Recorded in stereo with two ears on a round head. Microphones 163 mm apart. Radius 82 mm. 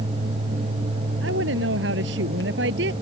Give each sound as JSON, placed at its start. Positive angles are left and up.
{"t": 1.2, "sound": "a woman speaking", "side_deg": -70}